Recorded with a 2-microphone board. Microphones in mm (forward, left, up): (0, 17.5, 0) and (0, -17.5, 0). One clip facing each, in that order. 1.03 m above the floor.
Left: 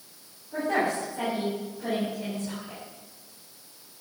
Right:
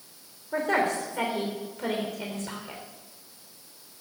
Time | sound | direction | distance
0.5 | a woman speaking | 75° right (ahead or behind) | 3 m